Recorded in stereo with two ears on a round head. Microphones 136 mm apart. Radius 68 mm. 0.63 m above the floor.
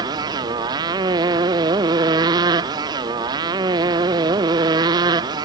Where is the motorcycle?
25° right (ahead or behind); by 5.5 s 30° right (ahead or behind).